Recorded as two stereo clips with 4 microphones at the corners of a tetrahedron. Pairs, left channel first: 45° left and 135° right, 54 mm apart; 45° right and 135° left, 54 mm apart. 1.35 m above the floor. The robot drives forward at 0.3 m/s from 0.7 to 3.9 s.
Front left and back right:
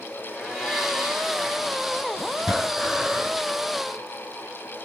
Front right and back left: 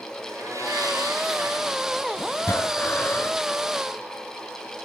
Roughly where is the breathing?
Ahead right.